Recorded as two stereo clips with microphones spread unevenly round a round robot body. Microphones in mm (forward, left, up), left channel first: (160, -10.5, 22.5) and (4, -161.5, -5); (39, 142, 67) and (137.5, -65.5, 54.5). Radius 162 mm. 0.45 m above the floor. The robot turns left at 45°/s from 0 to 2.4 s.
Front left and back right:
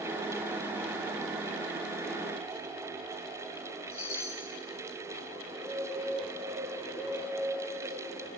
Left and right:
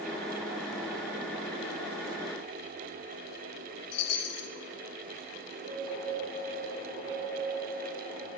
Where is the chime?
115° left, 0.9 m.